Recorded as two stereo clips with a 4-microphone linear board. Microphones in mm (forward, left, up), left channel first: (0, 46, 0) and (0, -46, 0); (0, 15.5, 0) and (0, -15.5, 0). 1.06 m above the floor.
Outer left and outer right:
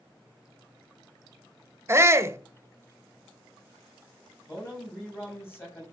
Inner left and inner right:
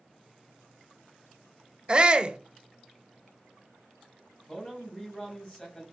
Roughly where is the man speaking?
Left.